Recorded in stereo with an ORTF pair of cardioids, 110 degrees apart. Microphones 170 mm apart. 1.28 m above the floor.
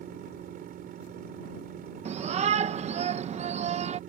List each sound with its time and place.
0.0 s a machine running: 60° right
2.0 s a shout: 40° right